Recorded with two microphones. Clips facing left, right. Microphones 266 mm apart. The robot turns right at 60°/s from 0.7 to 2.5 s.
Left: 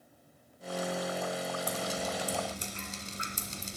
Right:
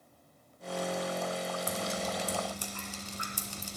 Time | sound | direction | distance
1.7 | dripping | 5° right (ahead or behind) | 1.7 m